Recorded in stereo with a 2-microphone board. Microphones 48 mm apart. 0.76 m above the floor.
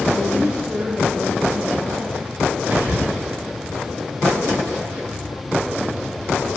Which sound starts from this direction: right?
Whispering, at 2.7 s.